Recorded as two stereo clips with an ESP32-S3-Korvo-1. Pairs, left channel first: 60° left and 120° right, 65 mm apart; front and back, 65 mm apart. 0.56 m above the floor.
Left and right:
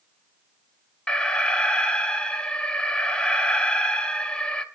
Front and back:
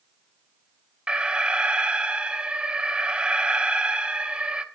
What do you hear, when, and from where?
1.1 s an alarm: 120° left, 0.9 m